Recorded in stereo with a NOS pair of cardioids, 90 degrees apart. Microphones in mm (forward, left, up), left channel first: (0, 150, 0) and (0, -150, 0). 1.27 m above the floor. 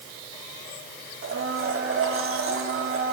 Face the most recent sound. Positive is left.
turn(degrees=-45)